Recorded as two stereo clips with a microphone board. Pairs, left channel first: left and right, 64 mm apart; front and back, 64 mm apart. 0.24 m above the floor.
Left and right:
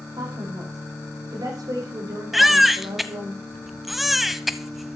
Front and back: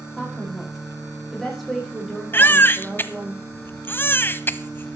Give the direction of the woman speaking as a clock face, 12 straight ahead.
3 o'clock.